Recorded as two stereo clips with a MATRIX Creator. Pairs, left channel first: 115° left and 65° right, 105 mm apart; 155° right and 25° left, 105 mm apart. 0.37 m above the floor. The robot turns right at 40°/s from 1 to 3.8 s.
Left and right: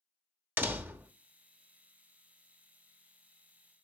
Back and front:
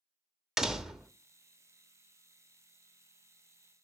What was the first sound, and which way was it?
A door slam, 55° right.